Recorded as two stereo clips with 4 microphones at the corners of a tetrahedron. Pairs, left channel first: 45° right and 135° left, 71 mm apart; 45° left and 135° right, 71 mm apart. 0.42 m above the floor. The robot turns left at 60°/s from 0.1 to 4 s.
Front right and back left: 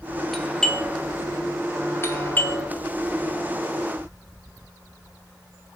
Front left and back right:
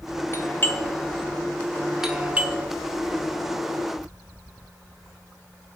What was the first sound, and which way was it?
A doorbell, 45° left.